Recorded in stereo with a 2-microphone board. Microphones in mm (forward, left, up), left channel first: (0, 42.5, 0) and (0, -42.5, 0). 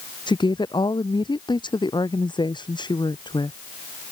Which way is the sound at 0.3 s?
65° left (ahead or behind).